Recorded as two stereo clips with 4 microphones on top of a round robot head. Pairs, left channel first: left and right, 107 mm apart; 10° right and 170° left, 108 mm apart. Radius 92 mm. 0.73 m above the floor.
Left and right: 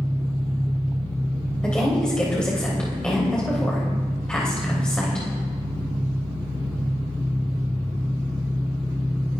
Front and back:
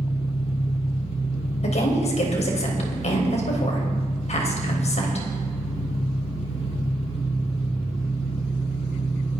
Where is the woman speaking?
5° left, 3 m.